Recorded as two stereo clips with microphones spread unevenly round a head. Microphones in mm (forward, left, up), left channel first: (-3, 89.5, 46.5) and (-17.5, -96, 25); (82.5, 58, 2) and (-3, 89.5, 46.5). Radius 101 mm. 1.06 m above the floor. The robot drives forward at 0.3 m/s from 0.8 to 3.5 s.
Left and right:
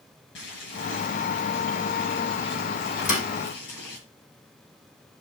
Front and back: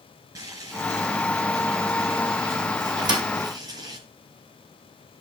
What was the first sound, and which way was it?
Boiling, 115° left.